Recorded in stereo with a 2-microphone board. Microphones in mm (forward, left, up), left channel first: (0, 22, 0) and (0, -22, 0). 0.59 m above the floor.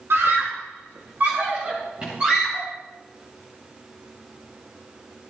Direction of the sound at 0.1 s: 70° right (ahead or behind).